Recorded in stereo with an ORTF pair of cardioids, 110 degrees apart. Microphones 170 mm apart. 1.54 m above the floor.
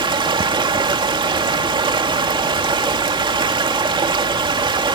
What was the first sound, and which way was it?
Running water, 30° right.